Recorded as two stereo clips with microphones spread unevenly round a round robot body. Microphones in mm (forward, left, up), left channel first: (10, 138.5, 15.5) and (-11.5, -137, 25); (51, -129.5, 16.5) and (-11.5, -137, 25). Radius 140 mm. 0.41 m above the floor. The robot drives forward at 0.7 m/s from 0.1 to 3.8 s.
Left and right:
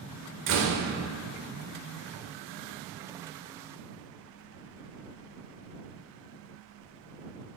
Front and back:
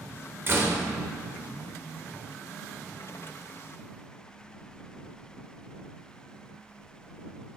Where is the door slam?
120° right, 1.1 m; by 0.8 s 135° right, 1.2 m.